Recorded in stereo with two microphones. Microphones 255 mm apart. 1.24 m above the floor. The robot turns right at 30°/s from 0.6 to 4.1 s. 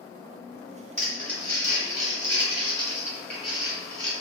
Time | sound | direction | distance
1.0 | crumpling | 55° left (ahead or behind) | 1.8 m